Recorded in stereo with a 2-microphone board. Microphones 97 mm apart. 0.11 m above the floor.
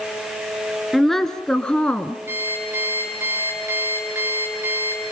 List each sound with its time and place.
0.9 s a woman speaking: centre (ahead or behind), 1.5 m; by 2.2 s 10° left (ahead or behind), 1.5 m
2.3 s an alarm clock: 20° right (ahead or behind), 7 m